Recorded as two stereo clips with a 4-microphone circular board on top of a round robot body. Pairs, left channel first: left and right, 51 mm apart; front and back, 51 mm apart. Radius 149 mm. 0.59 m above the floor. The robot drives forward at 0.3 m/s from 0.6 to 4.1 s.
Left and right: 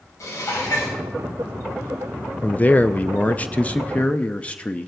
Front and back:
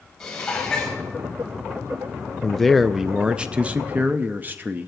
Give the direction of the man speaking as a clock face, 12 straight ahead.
10 o'clock.